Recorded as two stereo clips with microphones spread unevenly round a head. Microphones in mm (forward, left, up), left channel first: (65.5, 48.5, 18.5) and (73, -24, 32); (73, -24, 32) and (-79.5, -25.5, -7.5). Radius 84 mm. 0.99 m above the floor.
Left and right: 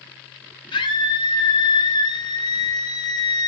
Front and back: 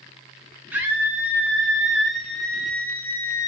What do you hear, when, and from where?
0.7 s a scream: 100° left, 3.5 m; by 3.5 s 75° left, 1.6 m